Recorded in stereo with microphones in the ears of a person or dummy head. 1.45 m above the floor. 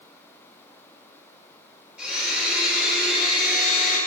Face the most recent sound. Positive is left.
turn(degrees=0)  # may be behind; listen again after turning